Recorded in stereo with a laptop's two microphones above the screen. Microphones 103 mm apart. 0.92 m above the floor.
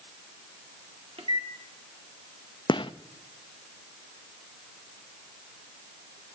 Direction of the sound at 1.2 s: 65° right (ahead or behind).